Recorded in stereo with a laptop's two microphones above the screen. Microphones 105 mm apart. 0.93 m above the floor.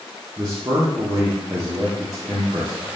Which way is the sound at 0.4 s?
35° right (ahead or behind).